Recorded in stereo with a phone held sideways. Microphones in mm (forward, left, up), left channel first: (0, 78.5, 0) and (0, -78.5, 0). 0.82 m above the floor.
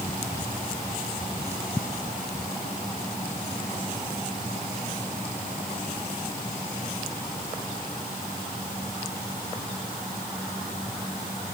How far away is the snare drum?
No snare drum in this recording.